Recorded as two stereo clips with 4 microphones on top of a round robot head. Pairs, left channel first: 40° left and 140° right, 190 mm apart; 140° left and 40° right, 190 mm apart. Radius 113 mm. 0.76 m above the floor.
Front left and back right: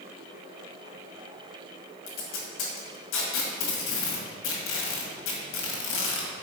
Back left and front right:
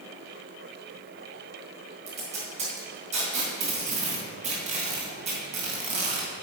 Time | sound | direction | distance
2.1 | tape being pulled | 15° left | 2.0 m